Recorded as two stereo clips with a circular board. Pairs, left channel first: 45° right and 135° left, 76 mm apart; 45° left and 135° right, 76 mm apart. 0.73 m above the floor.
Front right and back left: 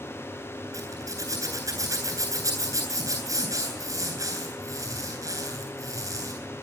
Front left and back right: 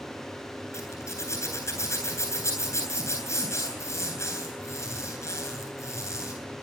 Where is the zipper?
95° left, 9.5 m.